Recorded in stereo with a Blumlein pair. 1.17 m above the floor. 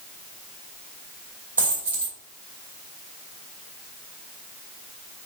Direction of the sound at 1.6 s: 70° right.